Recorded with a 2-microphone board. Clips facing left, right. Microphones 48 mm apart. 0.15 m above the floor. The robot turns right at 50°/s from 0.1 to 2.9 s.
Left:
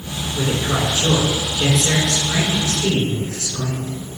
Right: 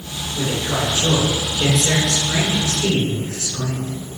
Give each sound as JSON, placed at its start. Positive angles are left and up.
{"t": 0.3, "sound": "a man speaking", "azimuth_deg": 110, "distance_m": 1.3}